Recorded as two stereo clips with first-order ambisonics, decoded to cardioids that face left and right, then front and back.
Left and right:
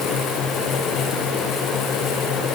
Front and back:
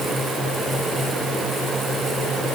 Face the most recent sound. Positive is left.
No sound to turn to.